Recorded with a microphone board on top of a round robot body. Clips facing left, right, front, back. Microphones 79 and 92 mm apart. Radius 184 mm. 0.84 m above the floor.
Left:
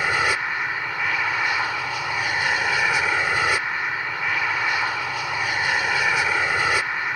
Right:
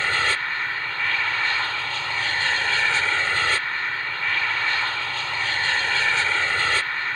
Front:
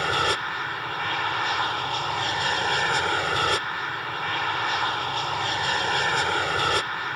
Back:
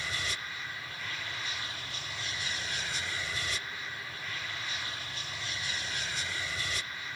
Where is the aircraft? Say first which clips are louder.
Left 2 dB, front 14 dB; 15° left.